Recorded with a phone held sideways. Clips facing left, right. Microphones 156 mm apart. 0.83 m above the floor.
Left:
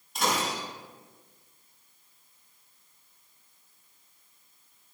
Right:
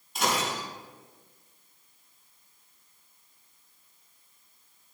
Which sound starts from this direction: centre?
Breaking glass, at 0.1 s.